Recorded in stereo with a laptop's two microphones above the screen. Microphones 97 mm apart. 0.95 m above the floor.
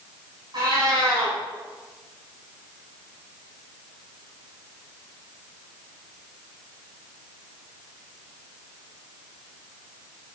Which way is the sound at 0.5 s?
50° right (ahead or behind).